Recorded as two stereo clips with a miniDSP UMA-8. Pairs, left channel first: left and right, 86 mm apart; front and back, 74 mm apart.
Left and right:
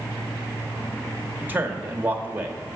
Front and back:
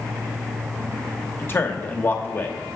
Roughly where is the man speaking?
Ahead right.